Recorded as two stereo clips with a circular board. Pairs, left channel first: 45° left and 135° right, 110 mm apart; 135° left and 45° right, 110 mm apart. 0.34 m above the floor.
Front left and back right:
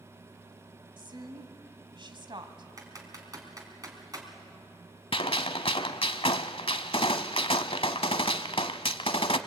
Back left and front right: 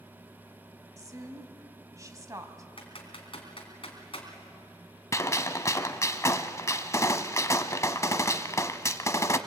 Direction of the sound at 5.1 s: 75° left.